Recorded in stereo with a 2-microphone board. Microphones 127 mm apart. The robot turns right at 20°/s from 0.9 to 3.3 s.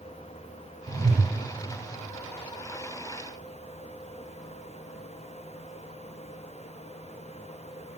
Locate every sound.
0.9 s a whoosh: 85° right, 6.5 m; by 1.3 s 90° right, 6.5 m